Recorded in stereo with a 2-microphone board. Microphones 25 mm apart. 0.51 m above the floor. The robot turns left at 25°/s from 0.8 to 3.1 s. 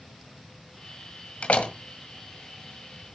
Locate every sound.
1.4 s a door slam: 60° left (ahead or behind), 1.8 m; by 1.7 s 65° left (ahead or behind), 1.8 m